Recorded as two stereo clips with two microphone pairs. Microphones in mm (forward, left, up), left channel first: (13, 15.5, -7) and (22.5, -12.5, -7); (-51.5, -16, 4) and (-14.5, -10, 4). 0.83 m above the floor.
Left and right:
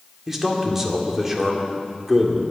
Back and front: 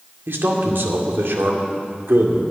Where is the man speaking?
10° left, 2 m.